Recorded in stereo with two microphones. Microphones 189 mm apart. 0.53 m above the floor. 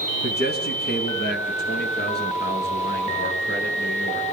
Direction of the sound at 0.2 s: 55° left (ahead or behind).